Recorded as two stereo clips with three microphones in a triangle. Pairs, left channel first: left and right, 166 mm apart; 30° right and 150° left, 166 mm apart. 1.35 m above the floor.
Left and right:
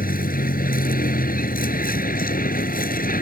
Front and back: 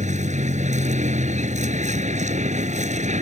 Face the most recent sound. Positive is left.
turn(degrees=110)